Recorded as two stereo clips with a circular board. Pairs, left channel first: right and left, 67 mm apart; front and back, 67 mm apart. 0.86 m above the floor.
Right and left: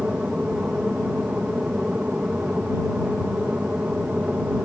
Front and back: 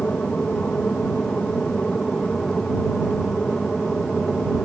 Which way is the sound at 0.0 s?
45° left.